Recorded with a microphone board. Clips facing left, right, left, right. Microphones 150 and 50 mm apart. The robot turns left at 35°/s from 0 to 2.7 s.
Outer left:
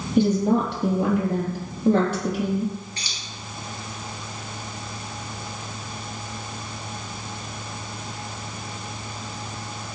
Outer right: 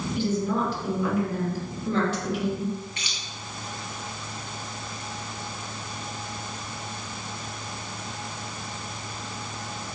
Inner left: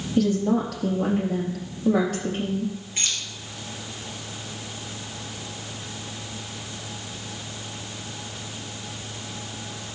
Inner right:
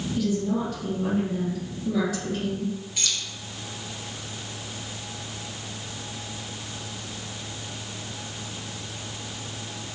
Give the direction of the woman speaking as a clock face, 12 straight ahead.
8 o'clock.